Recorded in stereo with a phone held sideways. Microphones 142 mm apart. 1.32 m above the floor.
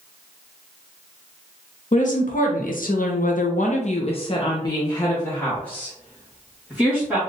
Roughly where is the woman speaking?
Left.